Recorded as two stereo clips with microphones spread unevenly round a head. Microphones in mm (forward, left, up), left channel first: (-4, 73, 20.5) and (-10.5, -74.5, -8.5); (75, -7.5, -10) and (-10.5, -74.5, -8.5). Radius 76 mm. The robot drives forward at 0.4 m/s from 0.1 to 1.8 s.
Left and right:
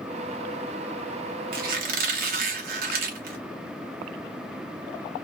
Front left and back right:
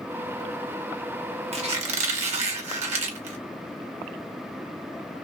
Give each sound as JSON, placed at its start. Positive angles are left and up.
{"t": 1.5, "sound": "a squeak", "azimuth_deg": -120, "distance_m": 1.0}